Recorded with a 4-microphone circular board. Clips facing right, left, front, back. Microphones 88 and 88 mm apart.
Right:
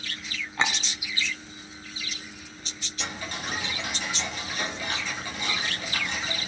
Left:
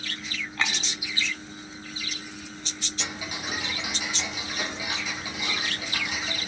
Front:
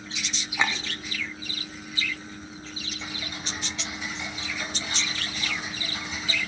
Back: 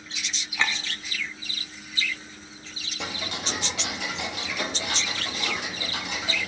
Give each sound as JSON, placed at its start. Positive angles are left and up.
{"t": 0.6, "sound": "a clink", "azimuth_deg": -55, "distance_m": 0.7}
{"t": 3.0, "sound": "ticking", "azimuth_deg": 175, "distance_m": 1.0}